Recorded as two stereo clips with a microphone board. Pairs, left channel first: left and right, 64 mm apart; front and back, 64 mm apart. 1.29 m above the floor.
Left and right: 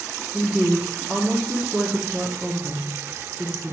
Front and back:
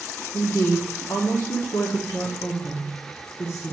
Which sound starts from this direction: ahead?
A woman speaking, at 0.3 s.